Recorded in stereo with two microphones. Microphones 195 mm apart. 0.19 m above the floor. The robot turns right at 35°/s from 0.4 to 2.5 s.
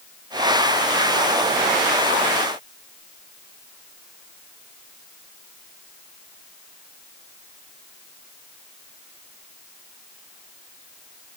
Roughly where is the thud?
I don't hear a thud.